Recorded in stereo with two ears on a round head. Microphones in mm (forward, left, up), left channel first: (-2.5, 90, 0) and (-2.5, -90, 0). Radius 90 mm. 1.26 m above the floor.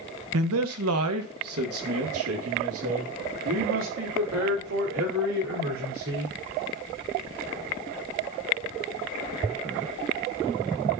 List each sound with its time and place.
0.3 s a man speaking: 80° right, 1.0 m; by 6.3 s 75° right (ahead or behind), 4.5 m